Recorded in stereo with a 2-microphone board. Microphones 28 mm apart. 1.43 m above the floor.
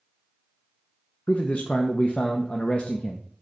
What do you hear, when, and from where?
1.3 s a man speaking: 50° left (ahead or behind), 0.7 m